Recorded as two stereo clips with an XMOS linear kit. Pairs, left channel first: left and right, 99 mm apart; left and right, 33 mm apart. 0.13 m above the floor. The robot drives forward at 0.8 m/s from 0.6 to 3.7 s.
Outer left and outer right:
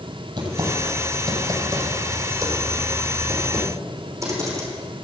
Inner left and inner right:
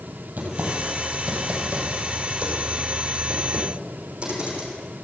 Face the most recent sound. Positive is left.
turn(degrees=-35)  # may be behind; listen again after turning